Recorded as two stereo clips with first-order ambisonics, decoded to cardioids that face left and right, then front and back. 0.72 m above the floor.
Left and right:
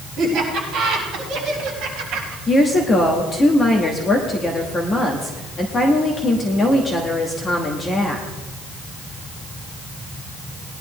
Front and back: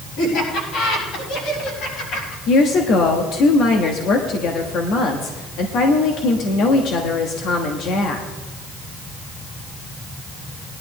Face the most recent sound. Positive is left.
turn(degrees=25)